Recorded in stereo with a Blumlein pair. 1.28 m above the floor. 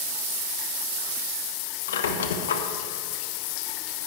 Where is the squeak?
60° left, 0.9 m.